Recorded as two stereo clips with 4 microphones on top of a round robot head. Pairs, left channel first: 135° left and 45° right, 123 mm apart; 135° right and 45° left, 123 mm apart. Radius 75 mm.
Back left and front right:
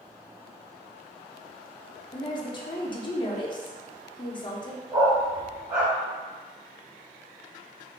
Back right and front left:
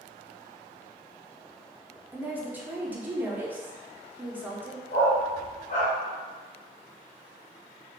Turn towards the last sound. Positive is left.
turn(degrees=-105)